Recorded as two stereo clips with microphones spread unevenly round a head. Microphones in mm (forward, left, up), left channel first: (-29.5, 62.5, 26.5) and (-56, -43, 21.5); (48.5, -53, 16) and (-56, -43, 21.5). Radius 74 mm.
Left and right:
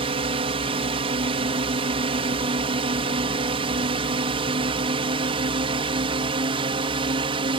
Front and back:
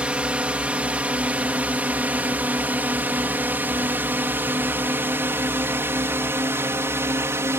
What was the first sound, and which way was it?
A drone, 110° right.